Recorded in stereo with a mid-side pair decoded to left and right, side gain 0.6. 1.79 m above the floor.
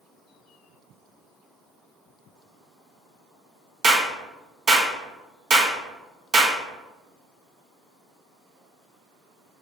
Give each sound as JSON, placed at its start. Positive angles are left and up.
{"t": 3.8, "sound": "a clap", "azimuth_deg": -35, "distance_m": 1.2}